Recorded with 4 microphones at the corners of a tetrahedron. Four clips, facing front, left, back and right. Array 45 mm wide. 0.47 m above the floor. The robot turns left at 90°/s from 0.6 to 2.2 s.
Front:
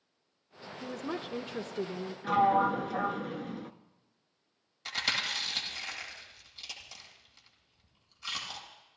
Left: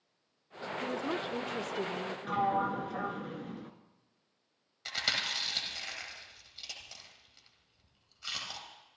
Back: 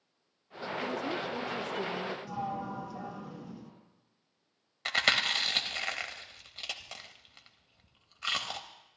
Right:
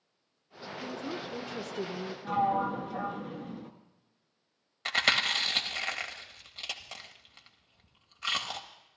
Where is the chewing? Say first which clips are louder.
Right 7 dB, back 5 dB; 140° right, 1.9 m.